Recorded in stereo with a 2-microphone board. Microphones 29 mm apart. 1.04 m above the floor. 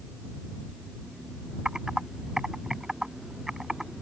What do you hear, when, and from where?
1.6 s typing on a keyboard: 20° right (ahead or behind)